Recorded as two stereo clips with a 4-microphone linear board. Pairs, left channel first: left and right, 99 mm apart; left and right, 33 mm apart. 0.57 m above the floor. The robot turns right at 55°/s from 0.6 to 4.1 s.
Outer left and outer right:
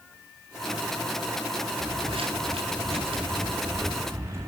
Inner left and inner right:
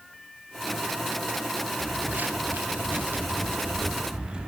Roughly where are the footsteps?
Right.